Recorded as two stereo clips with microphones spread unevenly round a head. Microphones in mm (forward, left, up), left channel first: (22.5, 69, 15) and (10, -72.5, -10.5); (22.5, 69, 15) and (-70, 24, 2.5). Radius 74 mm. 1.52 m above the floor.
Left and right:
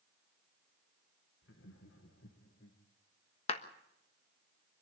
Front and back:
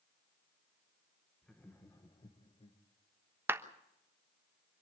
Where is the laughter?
110° left, 2.0 m; by 2.8 s 55° left, 2 m.